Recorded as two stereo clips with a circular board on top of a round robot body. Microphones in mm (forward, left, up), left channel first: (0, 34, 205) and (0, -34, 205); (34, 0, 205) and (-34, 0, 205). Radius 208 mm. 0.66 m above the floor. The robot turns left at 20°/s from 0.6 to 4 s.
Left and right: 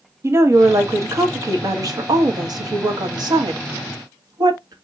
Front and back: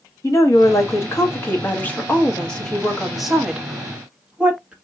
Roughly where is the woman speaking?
Ahead right.